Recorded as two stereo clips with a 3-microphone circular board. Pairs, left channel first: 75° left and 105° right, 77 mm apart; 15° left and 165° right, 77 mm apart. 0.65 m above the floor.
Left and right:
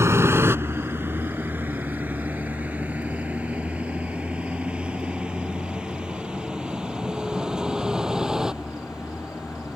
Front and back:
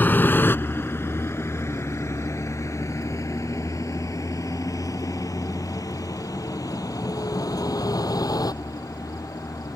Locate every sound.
0.0 s a vehicle: 50° right; by 9.8 s 20° right